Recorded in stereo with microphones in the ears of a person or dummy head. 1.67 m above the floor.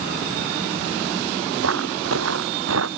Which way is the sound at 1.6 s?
75° right (ahead or behind).